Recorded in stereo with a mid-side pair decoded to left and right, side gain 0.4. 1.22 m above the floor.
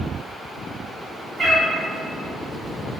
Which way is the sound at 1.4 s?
35° right.